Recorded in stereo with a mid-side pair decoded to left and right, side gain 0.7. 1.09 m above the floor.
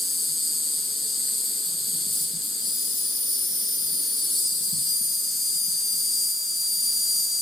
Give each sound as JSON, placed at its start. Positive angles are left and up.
{"t": 0.0, "sound": "an insect", "azimuth_deg": 25, "distance_m": 3.0}